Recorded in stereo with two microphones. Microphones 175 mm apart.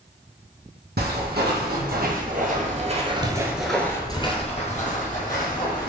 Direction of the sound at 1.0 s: 70° right (ahead or behind).